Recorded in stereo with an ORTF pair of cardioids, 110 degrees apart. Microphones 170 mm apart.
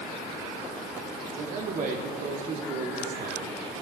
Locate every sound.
1.3 s a man speaking: 55° right, 2.5 m